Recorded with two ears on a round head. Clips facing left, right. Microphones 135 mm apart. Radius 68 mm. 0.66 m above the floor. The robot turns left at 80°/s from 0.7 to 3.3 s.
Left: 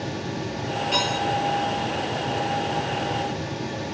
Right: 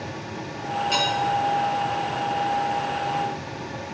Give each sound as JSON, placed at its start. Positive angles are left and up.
{"t": 0.9, "sound": "dishes clattering", "side_deg": -35, "distance_m": 7.5}